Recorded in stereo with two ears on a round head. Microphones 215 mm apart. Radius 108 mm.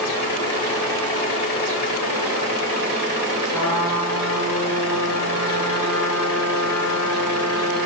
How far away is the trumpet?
About 8.5 m.